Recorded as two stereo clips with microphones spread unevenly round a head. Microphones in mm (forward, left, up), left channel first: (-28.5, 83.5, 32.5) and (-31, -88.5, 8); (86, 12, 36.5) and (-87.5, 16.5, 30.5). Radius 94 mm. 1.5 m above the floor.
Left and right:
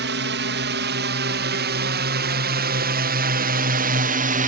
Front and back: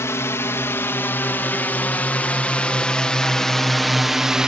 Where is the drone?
75° right; by 4.5 s 95° right.